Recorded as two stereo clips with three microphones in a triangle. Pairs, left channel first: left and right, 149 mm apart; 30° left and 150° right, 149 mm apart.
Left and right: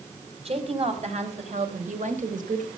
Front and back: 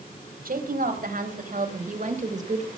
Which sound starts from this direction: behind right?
A woman speaking, at 0.5 s.